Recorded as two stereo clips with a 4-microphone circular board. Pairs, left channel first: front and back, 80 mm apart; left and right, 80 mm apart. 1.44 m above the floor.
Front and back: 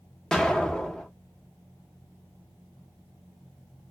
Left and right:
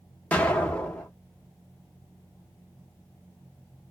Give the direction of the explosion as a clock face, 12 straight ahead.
10 o'clock.